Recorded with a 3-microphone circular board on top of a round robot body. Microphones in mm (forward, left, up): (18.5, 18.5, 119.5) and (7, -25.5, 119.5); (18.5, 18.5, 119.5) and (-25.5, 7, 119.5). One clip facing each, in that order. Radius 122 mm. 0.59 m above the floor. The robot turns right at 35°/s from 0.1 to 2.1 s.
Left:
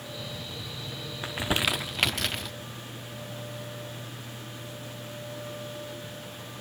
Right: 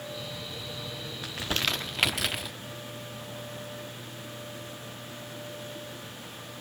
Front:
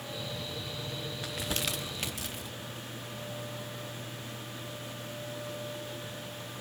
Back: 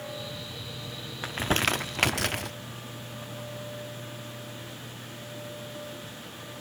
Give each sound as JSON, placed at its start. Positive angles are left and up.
{"t": 1.2, "sound": "crumpling", "azimuth_deg": 140, "distance_m": 0.7}